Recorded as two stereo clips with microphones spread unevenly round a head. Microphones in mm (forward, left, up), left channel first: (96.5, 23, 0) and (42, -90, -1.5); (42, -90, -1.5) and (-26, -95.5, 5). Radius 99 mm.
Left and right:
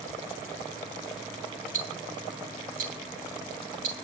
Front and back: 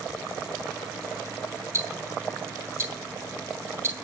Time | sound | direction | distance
1.7 | ticking | 130° right | 2.5 m